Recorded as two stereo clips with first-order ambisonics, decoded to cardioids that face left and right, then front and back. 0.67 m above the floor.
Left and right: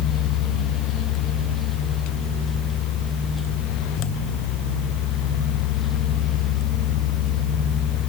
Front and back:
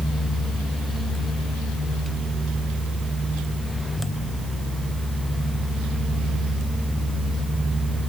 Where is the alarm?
No alarm in this recording.